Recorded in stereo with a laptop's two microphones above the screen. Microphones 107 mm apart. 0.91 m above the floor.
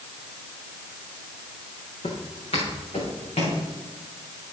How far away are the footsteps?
About 4 m.